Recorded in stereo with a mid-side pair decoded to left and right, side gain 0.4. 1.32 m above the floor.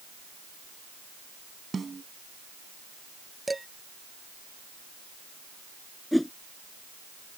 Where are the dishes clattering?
15° right.